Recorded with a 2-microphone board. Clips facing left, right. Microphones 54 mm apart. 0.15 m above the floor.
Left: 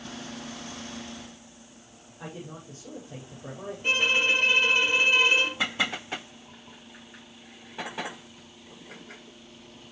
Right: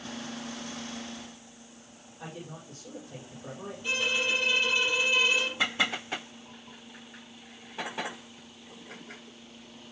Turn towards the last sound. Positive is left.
turn(degrees=45)  # may be behind; listen again after turning